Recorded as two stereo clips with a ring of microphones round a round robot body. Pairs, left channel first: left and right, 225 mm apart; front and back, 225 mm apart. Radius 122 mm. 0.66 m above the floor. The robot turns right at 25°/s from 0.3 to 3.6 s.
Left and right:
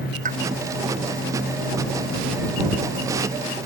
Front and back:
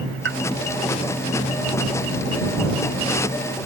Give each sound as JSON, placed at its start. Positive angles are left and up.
{"t": 0.2, "sound": "a pop", "azimuth_deg": -145}